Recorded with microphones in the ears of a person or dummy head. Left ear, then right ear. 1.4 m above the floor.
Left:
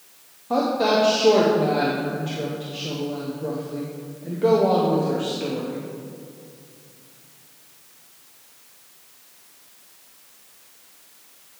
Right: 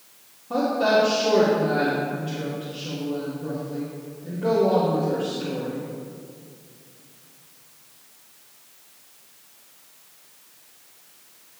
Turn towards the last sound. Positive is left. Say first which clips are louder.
# even
turn(degrees=40)  # may be behind; listen again after turning